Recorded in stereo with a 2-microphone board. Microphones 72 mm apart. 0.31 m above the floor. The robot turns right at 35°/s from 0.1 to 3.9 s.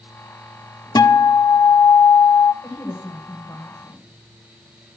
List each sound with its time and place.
0.9 s a guitar: 60° left, 0.5 m; by 2.5 s 115° left, 0.5 m
2.6 s a woman speaking: 70° left, 1.6 m; by 4.0 s 115° left, 1.6 m